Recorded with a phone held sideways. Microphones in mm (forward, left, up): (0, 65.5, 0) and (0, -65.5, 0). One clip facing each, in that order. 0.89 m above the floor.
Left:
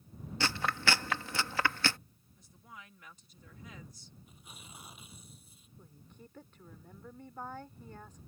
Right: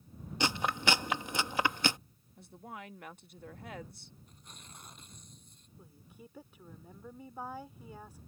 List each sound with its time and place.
0.4 s chewing: 20° right (ahead or behind)
2.4 s a woman speaking: 65° right (ahead or behind)
4.3 s tearing paper: 5° left (ahead or behind)
5.8 s a woman speaking: 10° right (ahead or behind)